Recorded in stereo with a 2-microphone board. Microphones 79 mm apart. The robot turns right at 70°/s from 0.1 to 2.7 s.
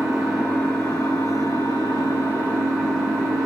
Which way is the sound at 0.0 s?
5° right.